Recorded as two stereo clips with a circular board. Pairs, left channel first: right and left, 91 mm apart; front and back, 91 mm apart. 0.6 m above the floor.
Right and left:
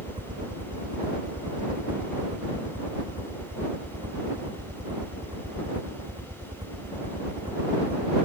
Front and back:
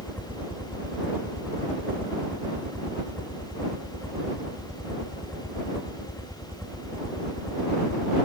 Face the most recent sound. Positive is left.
turn(degrees=55)